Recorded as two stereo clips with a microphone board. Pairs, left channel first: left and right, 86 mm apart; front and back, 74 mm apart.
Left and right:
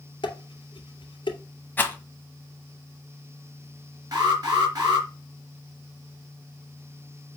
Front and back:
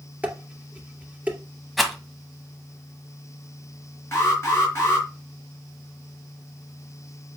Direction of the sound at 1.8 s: 90° left.